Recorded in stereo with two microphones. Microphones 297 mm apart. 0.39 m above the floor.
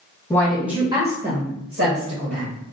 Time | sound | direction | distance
0.3 | a woman speaking | 10° left (ahead or behind) | 1.8 m